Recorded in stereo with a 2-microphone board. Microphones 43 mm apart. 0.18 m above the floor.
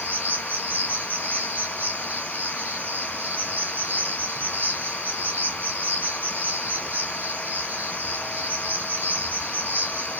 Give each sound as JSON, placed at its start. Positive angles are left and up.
{"t": 0.0, "sound": "an insect", "side_deg": -45, "distance_m": 3.0}